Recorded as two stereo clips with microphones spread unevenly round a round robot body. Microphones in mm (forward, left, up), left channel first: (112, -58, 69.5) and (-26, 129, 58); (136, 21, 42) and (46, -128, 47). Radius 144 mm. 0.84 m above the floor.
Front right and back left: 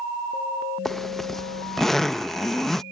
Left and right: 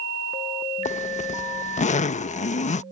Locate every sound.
0.8 s a zipper: 40° left